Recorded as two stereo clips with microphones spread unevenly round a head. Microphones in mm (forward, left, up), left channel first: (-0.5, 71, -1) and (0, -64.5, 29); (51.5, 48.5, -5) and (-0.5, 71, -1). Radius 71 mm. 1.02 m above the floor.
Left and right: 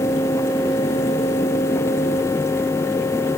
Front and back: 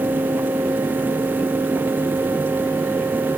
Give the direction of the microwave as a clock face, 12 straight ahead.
No microwave in this recording.